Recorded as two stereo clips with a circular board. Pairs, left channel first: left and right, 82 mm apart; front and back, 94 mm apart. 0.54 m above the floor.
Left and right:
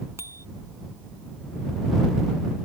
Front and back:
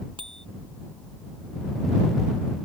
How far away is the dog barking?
No dog barking in this recording.